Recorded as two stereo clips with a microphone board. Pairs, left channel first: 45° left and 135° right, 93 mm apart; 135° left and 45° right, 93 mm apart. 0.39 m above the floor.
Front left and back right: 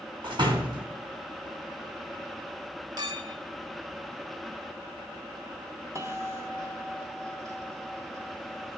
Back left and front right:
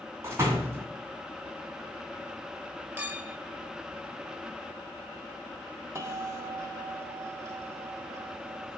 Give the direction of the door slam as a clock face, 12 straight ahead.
3 o'clock.